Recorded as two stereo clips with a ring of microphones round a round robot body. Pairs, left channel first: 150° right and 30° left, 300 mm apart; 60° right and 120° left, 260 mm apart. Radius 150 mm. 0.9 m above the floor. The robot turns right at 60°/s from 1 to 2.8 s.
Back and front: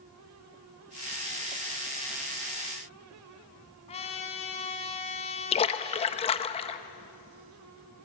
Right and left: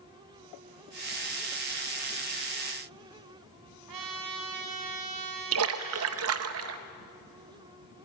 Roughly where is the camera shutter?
I don't hear a camera shutter.